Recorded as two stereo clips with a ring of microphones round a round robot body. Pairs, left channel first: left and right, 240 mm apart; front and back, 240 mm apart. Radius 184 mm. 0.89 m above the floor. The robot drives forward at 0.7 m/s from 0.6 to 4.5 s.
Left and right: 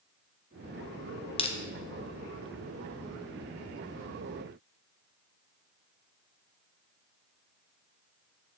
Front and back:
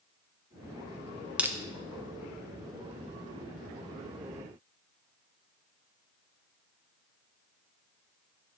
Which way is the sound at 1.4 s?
100° left.